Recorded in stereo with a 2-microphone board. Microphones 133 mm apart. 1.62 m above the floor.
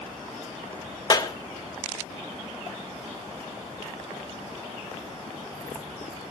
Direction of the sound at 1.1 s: 35° left (ahead or behind).